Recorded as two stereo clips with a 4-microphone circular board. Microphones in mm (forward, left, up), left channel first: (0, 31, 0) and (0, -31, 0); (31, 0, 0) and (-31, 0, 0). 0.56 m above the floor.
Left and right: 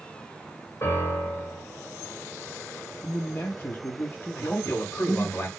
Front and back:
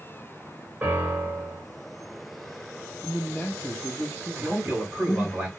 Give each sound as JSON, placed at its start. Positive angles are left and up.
{"t": 0.8, "sound": "a piano", "azimuth_deg": 120, "distance_m": 3.0}
{"t": 3.0, "sound": "a man speaking", "azimuth_deg": 65, "distance_m": 0.8}
{"t": 4.4, "sound": "a man speaking", "azimuth_deg": 120, "distance_m": 3.5}